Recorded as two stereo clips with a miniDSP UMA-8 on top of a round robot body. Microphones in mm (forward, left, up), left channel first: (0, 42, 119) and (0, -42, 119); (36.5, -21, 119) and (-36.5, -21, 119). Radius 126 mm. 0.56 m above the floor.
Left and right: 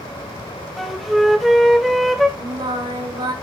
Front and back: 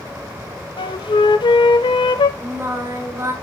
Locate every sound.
0.8 s a flute: straight ahead, 1.1 m
2.4 s singing: 130° right, 4.5 m